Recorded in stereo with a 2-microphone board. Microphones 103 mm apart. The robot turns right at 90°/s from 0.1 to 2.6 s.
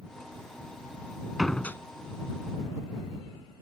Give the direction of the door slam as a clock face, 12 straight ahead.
12 o'clock.